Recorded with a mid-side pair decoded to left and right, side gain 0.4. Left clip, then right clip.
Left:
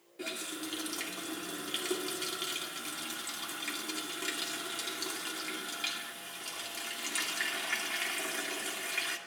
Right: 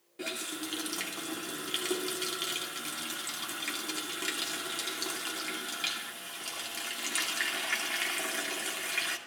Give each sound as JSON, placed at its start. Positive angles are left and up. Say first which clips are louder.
{"t": 0.2, "sound": "a running tap", "louder": "right 2 dB", "azimuth_deg": -30, "distance_m": 2.5}